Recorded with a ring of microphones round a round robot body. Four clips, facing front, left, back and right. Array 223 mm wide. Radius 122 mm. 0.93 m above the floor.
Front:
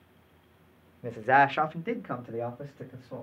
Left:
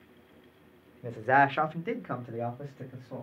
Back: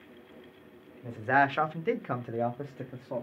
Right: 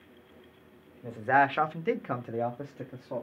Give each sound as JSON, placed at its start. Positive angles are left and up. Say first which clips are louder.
{"t": 1.0, "sound": "a man speaking", "louder": "left 1 dB, front 3 dB", "azimuth_deg": 20, "distance_m": 0.7}